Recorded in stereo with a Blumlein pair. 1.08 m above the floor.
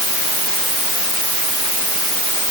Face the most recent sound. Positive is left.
No sound to turn to.